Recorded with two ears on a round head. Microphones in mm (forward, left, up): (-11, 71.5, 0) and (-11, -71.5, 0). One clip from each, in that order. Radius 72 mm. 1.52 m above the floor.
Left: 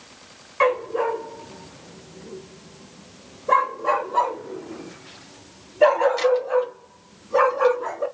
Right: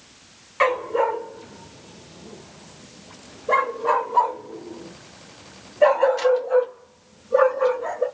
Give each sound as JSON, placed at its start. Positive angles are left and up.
{"t": 0.6, "sound": "a dog barking", "side_deg": -20, "distance_m": 1.3}